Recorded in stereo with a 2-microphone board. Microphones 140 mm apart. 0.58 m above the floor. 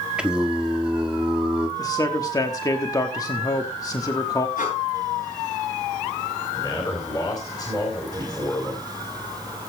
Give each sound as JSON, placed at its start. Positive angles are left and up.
{"t": 0.2, "sound": "singing", "side_deg": -5, "distance_m": 1.3}
{"t": 1.8, "sound": "a man speaking", "side_deg": 25, "distance_m": 1.1}
{"t": 4.6, "sound": "breathing", "side_deg": 75, "distance_m": 7.5}
{"t": 6.5, "sound": "a man speaking", "side_deg": 30, "distance_m": 3.0}